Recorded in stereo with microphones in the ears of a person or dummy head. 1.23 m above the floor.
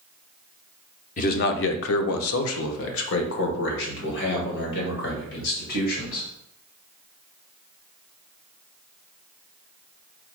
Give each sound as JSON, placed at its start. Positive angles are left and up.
{"t": 1.2, "sound": "a man speaking", "side_deg": 35, "distance_m": 0.6}